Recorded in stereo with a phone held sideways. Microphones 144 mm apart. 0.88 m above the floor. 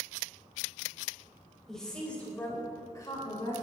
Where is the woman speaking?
5° left (ahead or behind), 4.5 m; by 3.6 s 35° left (ahead or behind), 3.5 m.